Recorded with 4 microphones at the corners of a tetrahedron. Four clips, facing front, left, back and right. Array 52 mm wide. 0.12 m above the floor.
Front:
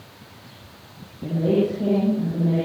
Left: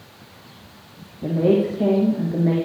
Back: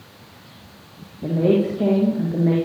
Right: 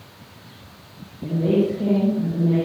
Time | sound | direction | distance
1.2 | a woman speaking | 135° left | 8 m